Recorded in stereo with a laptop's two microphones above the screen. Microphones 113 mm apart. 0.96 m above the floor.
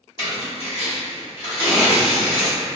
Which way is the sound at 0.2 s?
60° left (ahead or behind).